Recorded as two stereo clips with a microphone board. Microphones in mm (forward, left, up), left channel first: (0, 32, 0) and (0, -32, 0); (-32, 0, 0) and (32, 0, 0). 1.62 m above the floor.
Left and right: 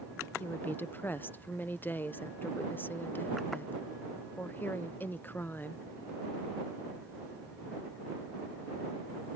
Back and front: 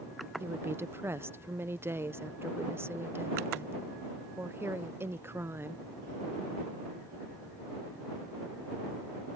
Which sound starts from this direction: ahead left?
A woman speaking, at 0.4 s.